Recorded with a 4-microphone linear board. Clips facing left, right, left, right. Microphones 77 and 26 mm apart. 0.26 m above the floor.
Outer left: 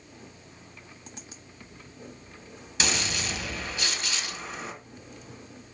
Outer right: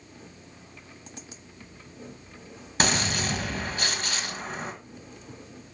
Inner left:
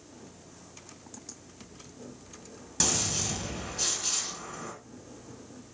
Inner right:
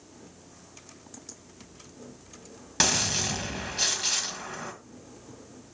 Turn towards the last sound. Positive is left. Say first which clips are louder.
# outer right 4 dB, inner right 5 dB
turn(degrees=-45)  # may be behind; listen again after turning